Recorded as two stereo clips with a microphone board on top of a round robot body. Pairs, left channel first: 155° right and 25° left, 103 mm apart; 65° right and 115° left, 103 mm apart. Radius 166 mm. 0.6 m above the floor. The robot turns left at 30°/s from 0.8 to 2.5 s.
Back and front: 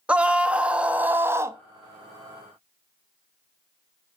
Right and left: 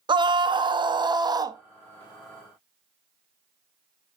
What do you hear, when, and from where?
0.1 s a scream: 95° left, 1.0 m; by 1.6 s 75° left, 1.0 m